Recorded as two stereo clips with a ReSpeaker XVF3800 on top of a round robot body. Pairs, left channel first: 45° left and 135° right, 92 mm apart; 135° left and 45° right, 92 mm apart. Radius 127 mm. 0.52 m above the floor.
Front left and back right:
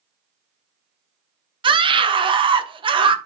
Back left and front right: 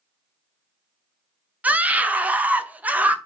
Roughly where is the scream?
Behind right.